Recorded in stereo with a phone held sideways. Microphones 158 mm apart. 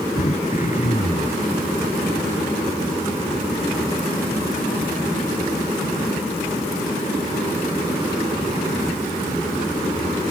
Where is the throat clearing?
50° left (ahead or behind).